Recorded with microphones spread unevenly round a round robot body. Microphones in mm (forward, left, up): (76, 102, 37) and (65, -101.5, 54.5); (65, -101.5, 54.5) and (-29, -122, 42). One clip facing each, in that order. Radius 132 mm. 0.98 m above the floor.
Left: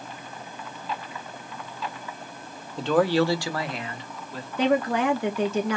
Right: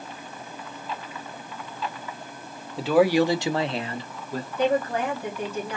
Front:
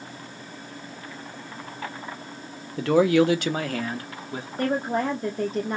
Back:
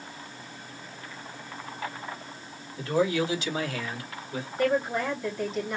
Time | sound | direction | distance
2.8 | a man speaking | 5° right | 1.8 m
4.6 | a woman speaking | 75° left | 2.5 m